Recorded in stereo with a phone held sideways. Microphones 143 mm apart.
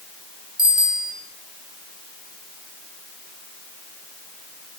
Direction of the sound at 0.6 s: 70° left (ahead or behind).